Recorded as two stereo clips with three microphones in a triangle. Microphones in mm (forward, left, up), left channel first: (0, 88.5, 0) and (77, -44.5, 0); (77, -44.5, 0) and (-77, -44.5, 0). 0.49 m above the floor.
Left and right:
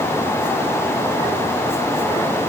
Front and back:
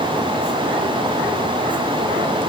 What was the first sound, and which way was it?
Only background noise.